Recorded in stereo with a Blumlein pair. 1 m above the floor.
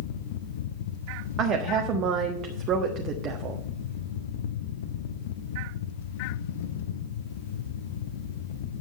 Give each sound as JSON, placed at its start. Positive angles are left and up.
{"t": 0.0, "sound": "a fan", "azimuth_deg": 55, "distance_m": 0.9}
{"t": 1.4, "sound": "a woman speaking", "azimuth_deg": -30, "distance_m": 1.3}